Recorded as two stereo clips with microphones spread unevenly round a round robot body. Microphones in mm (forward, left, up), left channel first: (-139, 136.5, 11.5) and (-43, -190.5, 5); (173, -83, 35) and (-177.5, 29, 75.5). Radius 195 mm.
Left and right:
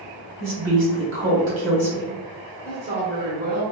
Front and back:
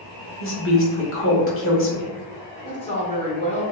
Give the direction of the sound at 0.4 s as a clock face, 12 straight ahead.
1 o'clock.